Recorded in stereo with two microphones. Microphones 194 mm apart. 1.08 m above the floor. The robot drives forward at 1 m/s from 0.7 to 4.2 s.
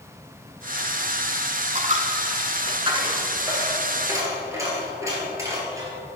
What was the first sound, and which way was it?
A dropped coin, 40° right (ahead or behind).